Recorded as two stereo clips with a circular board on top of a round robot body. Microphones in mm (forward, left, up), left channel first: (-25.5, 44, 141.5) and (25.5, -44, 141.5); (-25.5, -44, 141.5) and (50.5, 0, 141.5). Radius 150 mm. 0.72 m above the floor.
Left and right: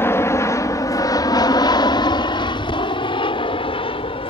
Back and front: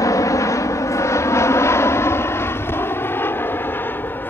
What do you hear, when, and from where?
0.0 s an aircraft: 175° left; by 4.3 s 140° left